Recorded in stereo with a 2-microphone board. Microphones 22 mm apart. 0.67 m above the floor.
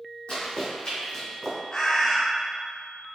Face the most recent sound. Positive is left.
turn(degrees=30)  # may be behind; listen again after turning